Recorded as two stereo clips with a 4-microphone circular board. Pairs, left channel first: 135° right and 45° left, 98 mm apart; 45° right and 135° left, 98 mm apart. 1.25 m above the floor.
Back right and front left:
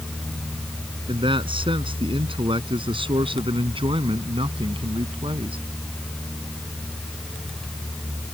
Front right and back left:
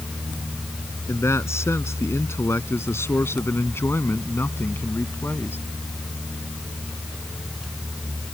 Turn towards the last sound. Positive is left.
turn(degrees=20)